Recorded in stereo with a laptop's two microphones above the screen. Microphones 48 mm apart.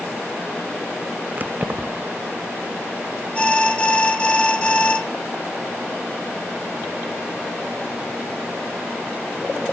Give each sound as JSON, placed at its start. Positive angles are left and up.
{"t": 1.4, "sound": "keys jangling", "side_deg": -35, "distance_m": 0.5}
{"t": 3.4, "sound": "an alarm", "side_deg": 20, "distance_m": 1.6}